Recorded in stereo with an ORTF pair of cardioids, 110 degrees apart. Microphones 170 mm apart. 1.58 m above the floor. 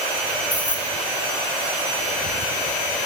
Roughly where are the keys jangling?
Ahead.